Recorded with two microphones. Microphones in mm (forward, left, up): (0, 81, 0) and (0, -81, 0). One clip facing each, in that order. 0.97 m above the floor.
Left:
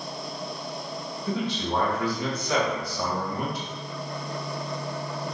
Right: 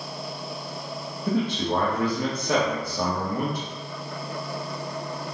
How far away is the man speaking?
About 1.1 m.